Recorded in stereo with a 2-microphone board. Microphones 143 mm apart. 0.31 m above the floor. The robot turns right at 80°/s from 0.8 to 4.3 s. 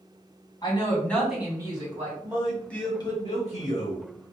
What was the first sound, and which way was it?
A woman speaking, 145° left.